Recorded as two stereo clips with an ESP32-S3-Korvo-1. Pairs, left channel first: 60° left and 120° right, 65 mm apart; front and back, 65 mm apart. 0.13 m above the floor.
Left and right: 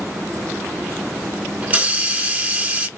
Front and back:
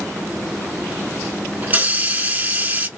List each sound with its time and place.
1.6 s a hiss: 155° right, 0.8 m